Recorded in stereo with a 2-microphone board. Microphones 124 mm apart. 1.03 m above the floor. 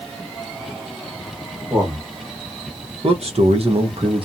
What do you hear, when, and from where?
1.7 s a man speaking: 35° right (ahead or behind), 1.2 m; by 4.2 s 45° right (ahead or behind), 0.9 m